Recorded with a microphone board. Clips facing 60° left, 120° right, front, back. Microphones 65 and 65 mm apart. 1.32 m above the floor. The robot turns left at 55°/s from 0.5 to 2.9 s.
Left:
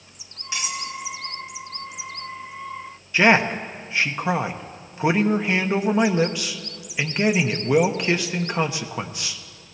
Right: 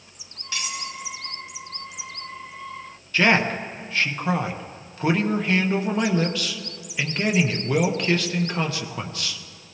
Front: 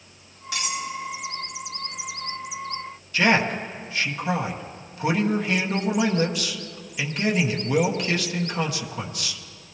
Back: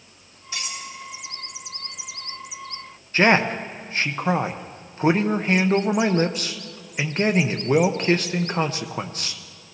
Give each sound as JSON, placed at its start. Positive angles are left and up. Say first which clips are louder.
{"t": 0.5, "sound": "cutlery clinking", "louder": "left 2 dB, front 5 dB", "azimuth_deg": -10, "distance_m": 1.5}
{"t": 3.1, "sound": "a man speaking", "louder": "left 2 dB, back 3 dB", "azimuth_deg": 130, "distance_m": 1.0}